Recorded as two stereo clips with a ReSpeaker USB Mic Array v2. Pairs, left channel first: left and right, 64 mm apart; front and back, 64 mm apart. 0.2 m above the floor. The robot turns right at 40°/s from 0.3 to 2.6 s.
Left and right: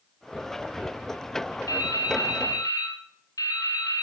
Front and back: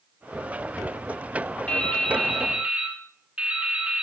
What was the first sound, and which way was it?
Dripping, 70° left.